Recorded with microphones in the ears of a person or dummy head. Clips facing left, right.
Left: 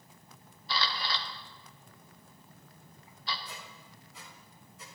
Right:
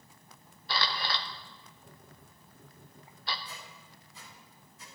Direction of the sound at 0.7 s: 45° right (ahead or behind).